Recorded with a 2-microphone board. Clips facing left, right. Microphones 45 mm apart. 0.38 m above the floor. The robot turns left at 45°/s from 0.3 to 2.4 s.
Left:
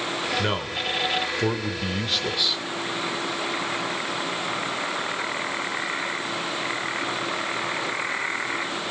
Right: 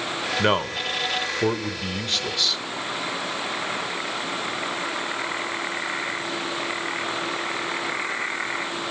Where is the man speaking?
110° right, 0.9 m; by 2.6 s 160° left, 0.9 m.